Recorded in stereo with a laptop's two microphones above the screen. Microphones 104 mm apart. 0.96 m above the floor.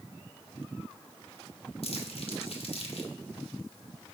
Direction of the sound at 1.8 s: 65° left (ahead or behind).